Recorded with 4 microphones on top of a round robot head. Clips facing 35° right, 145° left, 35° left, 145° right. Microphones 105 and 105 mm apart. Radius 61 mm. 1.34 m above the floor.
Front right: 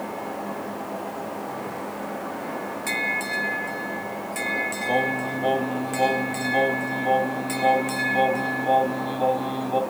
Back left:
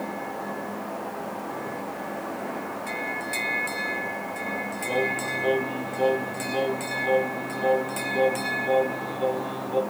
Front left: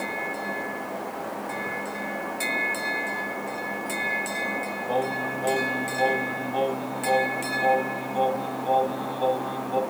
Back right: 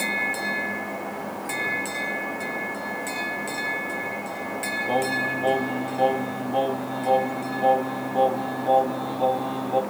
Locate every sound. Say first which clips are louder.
4.9 s singing: front right 3 dB, back right 2 dB; 85° right, 2 m